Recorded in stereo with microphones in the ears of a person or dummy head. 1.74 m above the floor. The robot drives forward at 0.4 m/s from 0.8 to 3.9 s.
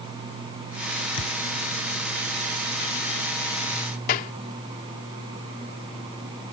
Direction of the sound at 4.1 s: 50° left (ahead or behind).